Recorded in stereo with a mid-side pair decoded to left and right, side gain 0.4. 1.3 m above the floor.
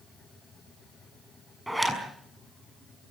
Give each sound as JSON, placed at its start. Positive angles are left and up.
{"t": 1.7, "sound": "a zipper", "azimuth_deg": -5, "distance_m": 6.0}